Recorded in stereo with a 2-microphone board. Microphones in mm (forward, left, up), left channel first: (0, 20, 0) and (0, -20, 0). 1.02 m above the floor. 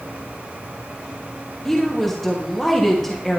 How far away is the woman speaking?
About 1.6 m.